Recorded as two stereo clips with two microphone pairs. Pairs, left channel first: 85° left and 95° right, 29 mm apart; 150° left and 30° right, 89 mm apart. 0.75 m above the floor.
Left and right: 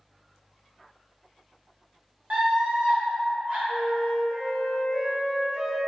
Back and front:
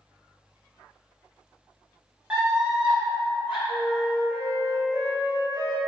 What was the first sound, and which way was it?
A scream, 105° right.